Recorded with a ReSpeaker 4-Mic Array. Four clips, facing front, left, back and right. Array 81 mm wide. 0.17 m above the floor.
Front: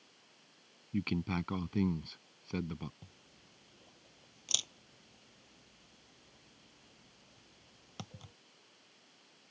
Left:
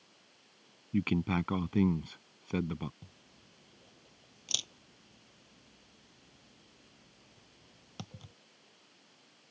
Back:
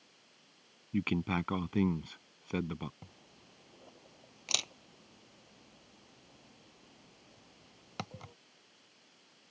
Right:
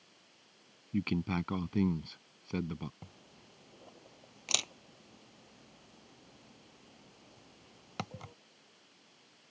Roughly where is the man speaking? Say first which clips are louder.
Left 3 dB, back 3 dB; behind left.